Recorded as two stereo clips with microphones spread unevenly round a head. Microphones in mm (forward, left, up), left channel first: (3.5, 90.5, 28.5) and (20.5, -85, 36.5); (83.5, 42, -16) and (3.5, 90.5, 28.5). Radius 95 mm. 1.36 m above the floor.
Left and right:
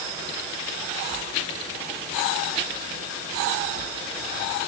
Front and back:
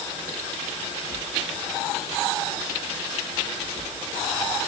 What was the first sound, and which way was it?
Only background noise.